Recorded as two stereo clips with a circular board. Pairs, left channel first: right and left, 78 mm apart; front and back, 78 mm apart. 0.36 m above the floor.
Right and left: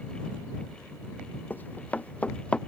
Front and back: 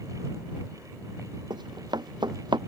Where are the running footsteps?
160° right; by 2.6 s 165° right.